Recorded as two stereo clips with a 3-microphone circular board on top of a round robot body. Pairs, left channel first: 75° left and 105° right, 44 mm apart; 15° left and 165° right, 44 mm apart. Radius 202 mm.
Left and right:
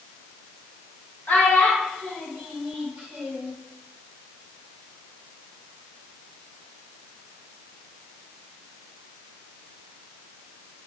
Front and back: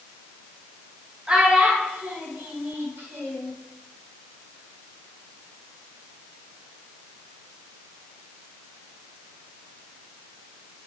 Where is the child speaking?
120° left, 2 m; by 3.5 s 170° right, 3.5 m.